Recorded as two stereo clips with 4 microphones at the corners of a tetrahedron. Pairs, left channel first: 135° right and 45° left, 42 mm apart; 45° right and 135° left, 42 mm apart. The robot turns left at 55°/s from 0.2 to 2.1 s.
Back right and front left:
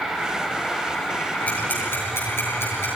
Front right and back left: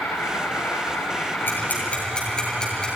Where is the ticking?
80° right, 8 m; by 2.9 s 115° right, 8 m.